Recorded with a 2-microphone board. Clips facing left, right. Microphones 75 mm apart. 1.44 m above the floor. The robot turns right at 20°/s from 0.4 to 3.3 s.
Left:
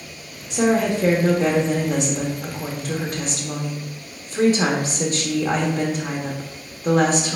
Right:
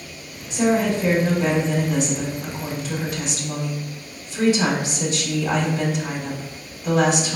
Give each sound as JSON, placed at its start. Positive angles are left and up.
{"t": 0.5, "sound": "a woman speaking", "azimuth_deg": 80, "distance_m": 1.2}